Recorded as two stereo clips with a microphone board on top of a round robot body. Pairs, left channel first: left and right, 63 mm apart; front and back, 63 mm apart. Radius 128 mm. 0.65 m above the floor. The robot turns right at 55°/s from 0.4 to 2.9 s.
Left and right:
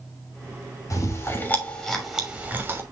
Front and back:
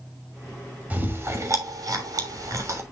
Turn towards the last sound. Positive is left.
turn(degrees=-130)